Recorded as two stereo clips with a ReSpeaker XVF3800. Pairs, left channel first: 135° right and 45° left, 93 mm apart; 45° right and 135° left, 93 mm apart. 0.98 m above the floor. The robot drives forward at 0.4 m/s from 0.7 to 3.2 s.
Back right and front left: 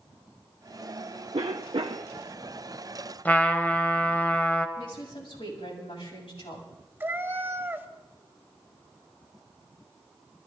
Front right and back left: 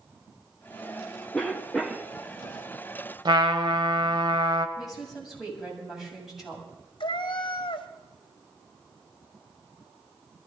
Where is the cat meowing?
20° right, 1.0 m.